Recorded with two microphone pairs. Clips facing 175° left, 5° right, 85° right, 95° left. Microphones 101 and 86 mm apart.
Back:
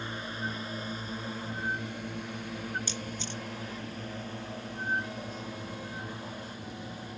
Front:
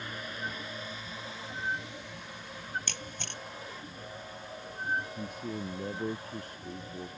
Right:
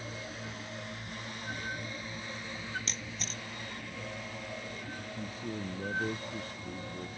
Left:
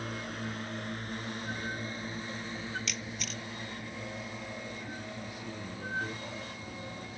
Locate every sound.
0.0 s a drone: 115° left; by 7.2 s 175° left
2.9 s a camera shutter: 30° right
5.2 s a man speaking: 30° right